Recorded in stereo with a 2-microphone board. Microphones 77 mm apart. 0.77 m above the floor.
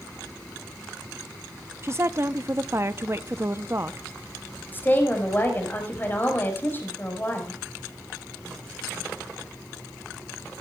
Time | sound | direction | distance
1.8 | a woman speaking | 35° right (ahead or behind) | 0.6 m
4.7 | a woman speaking | 25° left (ahead or behind) | 4.5 m